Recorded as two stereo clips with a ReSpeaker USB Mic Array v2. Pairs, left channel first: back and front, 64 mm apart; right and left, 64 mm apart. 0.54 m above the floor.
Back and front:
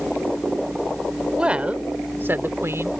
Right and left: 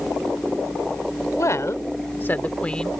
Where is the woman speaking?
70° right; by 2.9 s 10° right.